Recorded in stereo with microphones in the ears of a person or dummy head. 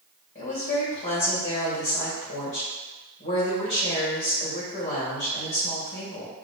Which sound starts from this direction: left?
A woman speaking, at 0.3 s.